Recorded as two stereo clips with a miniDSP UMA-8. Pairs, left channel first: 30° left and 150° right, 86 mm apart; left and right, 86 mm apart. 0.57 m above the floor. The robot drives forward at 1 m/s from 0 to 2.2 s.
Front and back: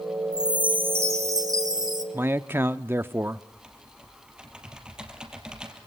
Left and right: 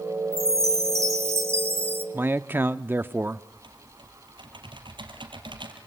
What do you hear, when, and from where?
0.3 s a chime: 70° right, 1.5 m; by 2.0 s 150° right, 2 m
2.1 s a man speaking: 115° right, 0.7 m; by 3.4 s 125° right, 0.7 m
3.5 s typing on a keyboard: 70° right, 3.5 m